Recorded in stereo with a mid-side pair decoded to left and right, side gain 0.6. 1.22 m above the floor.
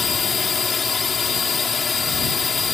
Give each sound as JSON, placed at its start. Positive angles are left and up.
{"t": 0.0, "sound": "a drone", "azimuth_deg": 30}